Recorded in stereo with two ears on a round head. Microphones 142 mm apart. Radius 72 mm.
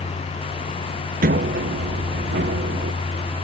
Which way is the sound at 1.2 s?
55° right (ahead or behind).